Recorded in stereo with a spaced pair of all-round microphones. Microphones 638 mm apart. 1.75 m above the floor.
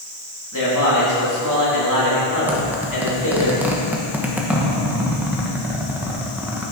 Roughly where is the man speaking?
Left.